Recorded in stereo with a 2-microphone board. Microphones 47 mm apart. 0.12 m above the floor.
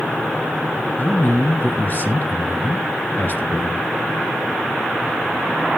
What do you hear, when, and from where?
1.0 s a man speaking: 40° left (ahead or behind), 1.3 m